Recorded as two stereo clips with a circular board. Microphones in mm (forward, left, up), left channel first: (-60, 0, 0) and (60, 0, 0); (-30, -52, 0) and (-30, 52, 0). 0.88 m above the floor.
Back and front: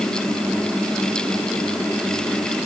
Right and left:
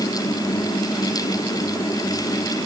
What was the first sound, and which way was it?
Only background noise.